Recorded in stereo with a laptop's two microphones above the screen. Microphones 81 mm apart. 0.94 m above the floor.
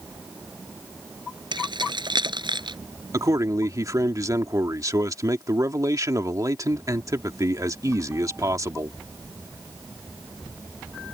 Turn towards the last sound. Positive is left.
turn(degrees=-45)  # may be behind; listen again after turning